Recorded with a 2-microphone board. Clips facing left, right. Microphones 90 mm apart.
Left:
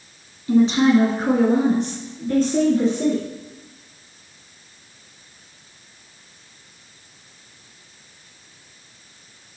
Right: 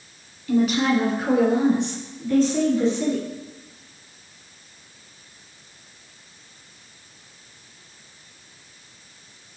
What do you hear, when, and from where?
0.5 s a woman speaking: 25° left (ahead or behind), 1.7 m; by 3.2 s 50° left (ahead or behind), 3 m